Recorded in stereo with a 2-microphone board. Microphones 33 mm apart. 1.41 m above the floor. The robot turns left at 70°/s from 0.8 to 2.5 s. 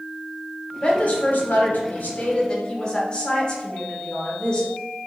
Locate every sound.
0.8 s a woman speaking: 145° left, 0.9 m; by 4.7 s 30° left, 0.9 m